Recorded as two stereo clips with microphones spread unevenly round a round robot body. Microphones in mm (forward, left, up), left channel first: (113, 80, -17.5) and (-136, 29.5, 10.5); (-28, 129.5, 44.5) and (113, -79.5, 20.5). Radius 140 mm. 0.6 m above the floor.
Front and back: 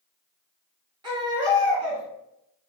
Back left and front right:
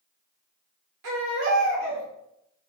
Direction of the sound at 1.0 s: 90° right.